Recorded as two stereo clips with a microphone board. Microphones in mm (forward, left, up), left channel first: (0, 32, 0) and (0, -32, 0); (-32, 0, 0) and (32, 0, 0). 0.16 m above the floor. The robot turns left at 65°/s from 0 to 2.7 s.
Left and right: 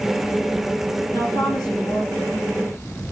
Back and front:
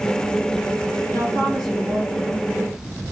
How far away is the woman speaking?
About 7 m.